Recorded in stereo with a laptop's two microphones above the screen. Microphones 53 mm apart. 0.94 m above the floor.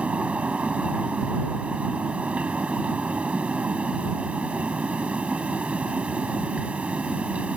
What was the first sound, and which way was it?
A fan, 25° right (ahead or behind).